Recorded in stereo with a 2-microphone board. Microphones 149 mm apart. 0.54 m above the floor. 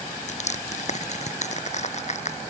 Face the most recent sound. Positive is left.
turn(degrees=45)  # may be behind; listen again after turning